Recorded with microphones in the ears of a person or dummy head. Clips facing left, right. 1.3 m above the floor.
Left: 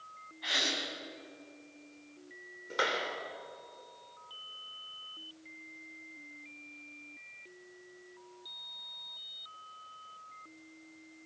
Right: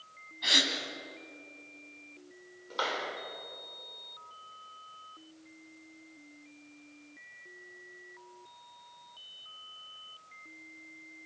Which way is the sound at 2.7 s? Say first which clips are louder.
Left 1 dB; 25° left (ahead or behind).